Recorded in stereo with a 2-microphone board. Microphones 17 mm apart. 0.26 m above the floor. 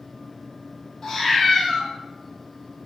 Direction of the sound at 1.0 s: 40° left (ahead or behind).